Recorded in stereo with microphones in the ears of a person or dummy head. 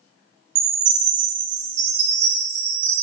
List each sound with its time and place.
0.6 s a chime: 50° right (ahead or behind), 1.3 m